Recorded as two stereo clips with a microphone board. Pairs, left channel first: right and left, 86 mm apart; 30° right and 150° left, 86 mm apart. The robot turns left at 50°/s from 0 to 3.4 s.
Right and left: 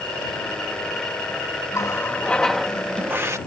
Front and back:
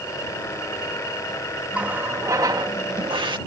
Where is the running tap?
135° right; by 3.4 s 140° left.